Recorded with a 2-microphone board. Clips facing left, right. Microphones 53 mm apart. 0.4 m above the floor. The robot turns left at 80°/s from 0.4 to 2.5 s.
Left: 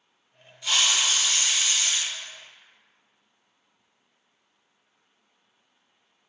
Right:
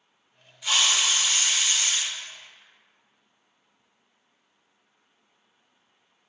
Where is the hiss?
15° right, 0.6 m; by 2.0 s 125° right, 0.6 m.